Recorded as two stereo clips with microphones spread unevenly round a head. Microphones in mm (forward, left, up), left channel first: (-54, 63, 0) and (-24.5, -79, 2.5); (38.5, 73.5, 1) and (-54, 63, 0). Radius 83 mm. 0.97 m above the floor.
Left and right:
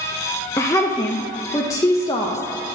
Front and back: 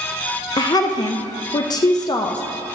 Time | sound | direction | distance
0.6 | a woman speaking | 35° left | 0.5 m